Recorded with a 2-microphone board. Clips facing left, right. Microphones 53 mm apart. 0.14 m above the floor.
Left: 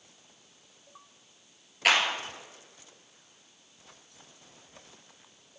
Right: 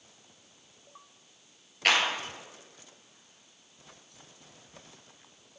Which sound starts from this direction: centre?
A clap, at 1.9 s.